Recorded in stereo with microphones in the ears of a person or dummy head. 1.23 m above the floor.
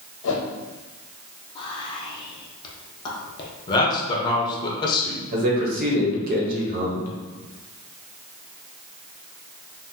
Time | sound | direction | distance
0.2 | a whoosh | 80° left | 0.8 m
1.6 | whispering | 25° left (ahead or behind) | 0.6 m
3.7 | a man speaking | 25° left (ahead or behind) | 0.8 m
5.3 | a man speaking | 50° right (ahead or behind) | 1.1 m